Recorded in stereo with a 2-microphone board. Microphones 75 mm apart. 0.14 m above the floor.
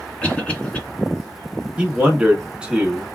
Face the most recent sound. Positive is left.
turn(degrees=-15)  # may be behind; listen again after turning